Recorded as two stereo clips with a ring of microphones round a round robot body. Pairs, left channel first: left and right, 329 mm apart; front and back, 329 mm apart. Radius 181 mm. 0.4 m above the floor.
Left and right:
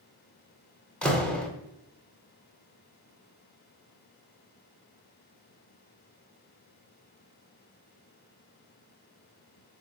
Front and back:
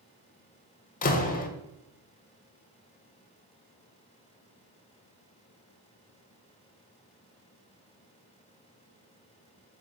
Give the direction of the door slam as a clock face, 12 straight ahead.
12 o'clock.